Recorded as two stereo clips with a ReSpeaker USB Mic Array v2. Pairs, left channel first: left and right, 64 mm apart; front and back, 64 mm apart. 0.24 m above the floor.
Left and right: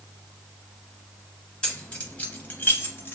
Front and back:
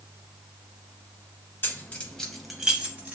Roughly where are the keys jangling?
Ahead left.